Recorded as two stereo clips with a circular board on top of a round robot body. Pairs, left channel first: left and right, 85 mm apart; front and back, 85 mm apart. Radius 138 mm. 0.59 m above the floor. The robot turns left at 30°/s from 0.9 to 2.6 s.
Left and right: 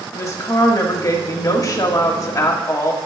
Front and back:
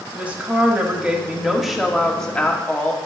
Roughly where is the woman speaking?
Behind left.